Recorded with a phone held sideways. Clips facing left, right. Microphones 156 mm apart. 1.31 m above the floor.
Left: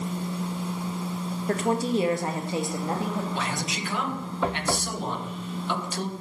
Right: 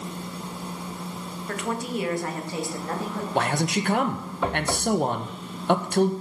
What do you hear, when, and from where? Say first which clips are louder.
1.5 s a woman speaking: left 5 dB; 35° left (ahead or behind), 1.5 m; by 3.2 s 15° left (ahead or behind), 2.5 m
3.4 s a man speaking: right 6 dB; 55° right (ahead or behind), 1.2 m